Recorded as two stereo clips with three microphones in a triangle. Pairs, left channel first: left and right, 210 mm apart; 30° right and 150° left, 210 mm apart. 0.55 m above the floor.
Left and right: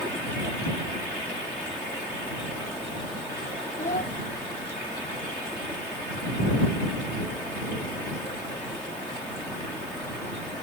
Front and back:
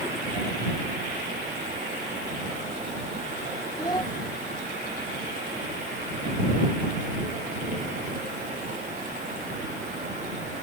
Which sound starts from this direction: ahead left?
A child speaking, at 3.8 s.